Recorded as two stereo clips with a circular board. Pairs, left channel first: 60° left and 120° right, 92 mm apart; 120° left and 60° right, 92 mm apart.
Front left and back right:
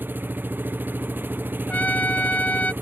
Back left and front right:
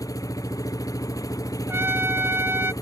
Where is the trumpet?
5° right.